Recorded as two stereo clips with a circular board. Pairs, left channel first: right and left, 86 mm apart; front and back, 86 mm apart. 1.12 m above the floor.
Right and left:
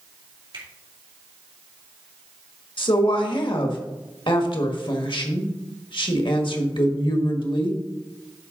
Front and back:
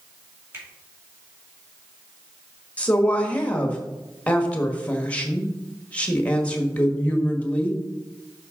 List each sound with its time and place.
0.5 s a finger snap: 120° left, 2.5 m
2.8 s a woman speaking: 75° right, 1.4 m